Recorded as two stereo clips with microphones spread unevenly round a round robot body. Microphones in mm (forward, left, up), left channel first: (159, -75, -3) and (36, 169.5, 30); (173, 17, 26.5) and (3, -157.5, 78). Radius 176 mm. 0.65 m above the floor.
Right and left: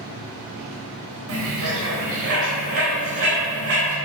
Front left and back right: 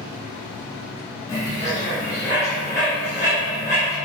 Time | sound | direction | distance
1.3 | a bird | 120° left | 3.5 m